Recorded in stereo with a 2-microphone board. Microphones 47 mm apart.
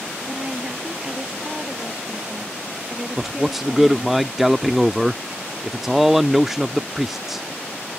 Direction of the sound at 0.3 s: 15° right (ahead or behind).